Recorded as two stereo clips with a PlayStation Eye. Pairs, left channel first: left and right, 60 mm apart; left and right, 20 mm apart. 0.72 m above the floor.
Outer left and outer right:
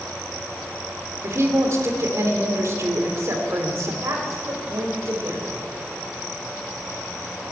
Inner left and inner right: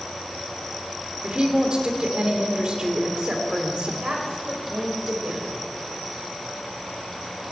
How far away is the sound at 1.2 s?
About 2.5 m.